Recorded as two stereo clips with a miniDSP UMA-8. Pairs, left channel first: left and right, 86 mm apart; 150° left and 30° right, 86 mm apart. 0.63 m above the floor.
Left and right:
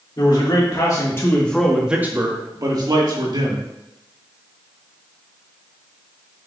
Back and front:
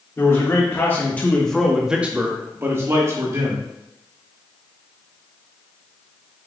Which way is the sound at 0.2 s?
95° left.